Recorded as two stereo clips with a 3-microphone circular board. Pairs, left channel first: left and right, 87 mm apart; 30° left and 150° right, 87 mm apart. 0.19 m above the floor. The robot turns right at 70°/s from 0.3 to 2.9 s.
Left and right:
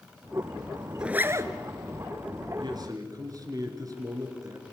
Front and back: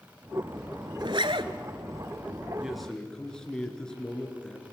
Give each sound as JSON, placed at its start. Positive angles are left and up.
{"t": 1.0, "sound": "a zipper", "azimuth_deg": -170, "distance_m": 0.9}
{"t": 2.6, "sound": "a man speaking", "azimuth_deg": -75, "distance_m": 3.5}